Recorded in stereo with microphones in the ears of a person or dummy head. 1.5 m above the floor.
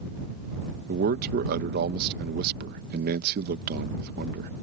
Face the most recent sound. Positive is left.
turn(degrees=-50)  # may be behind; listen again after turning